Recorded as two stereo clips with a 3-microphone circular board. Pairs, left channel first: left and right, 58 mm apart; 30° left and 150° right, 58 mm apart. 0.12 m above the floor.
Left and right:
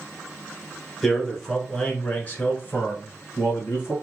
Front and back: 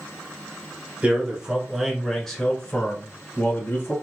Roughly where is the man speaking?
Behind.